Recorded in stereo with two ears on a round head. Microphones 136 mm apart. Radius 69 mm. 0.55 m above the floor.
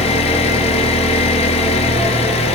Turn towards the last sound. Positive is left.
turn(degrees=40)  # may be behind; listen again after turning